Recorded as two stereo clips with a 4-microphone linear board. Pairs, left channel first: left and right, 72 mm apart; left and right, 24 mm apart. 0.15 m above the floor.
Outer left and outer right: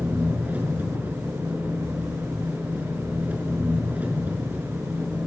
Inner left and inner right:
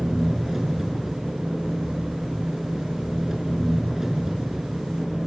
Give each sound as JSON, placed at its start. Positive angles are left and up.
{"t": 0.0, "sound": "an engine running", "side_deg": -20, "distance_m": 6.5}